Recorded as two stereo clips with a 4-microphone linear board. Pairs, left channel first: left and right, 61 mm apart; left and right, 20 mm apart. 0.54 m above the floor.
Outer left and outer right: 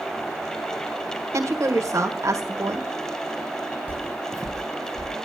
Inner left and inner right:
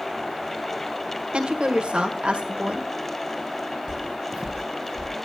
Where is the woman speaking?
60° right (ahead or behind), 1.6 m.